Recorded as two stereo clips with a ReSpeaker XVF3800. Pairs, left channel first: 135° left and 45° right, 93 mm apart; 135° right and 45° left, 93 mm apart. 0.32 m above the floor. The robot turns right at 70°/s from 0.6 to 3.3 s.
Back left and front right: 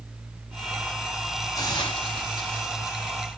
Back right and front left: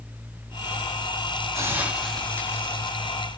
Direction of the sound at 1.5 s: 95° left.